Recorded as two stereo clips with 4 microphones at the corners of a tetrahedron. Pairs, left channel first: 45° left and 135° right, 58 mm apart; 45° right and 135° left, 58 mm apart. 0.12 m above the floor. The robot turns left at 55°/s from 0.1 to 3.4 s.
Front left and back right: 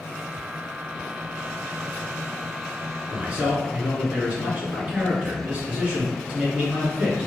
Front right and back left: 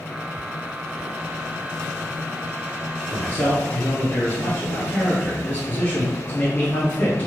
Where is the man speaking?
65° right, 1.6 m; by 7.3 s 80° right, 1.6 m.